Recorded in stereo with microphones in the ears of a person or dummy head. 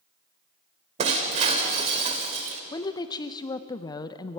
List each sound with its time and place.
1.0 s breaking glass: 40° right (ahead or behind), 2.5 m
2.7 s a woman speaking: 15° left (ahead or behind), 0.7 m